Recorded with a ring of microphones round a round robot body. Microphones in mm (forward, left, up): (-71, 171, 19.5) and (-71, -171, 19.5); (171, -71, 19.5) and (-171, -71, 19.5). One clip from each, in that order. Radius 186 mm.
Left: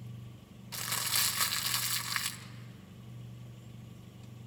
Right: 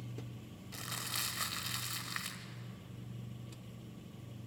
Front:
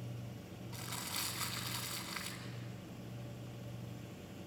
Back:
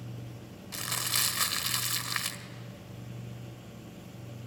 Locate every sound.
0.7 s crumpling: 145° left, 1.6 m